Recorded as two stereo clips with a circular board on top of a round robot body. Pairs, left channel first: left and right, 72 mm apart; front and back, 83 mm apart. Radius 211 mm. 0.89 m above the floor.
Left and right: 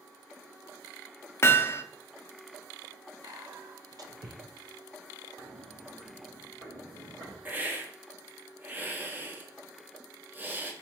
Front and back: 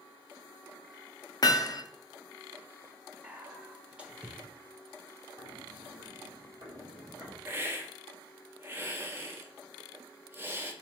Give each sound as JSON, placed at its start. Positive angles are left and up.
{"t": 1.4, "sound": "hammering", "azimuth_deg": 40, "distance_m": 0.5}
{"t": 3.2, "sound": "whispering", "azimuth_deg": -105, "distance_m": 0.7}
{"t": 5.4, "sound": "footsteps", "azimuth_deg": 180, "distance_m": 1.1}
{"t": 7.5, "sound": "a hiss", "azimuth_deg": -135, "distance_m": 0.9}